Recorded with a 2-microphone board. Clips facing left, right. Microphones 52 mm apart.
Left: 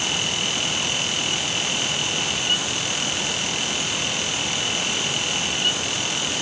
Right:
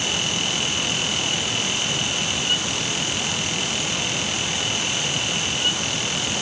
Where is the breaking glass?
No breaking glass in this recording.